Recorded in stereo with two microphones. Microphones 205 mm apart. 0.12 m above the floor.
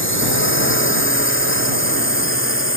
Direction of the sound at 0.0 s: 75° left (ahead or behind).